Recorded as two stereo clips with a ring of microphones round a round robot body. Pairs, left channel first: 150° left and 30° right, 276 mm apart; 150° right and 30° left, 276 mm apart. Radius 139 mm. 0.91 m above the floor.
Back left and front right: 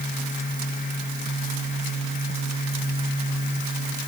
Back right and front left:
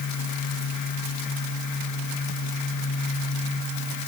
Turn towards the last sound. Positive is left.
No sound to turn to.